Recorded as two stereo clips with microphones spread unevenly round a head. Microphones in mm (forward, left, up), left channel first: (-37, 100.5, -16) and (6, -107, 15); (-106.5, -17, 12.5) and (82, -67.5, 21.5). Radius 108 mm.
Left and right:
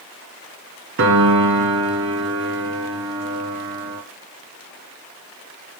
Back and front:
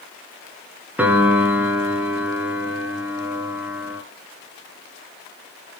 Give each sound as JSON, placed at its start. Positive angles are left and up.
{"t": 1.0, "sound": "a piano", "azimuth_deg": -95, "distance_m": 2.5}